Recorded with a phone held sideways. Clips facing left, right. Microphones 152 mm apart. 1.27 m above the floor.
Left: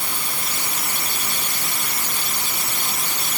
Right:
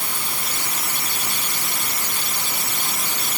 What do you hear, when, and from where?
Only background noise.